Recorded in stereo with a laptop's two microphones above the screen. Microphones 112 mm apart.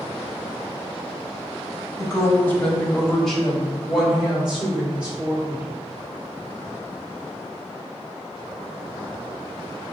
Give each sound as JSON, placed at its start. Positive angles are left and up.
{"t": 2.0, "sound": "a woman speaking", "side_deg": 25, "distance_m": 1.2}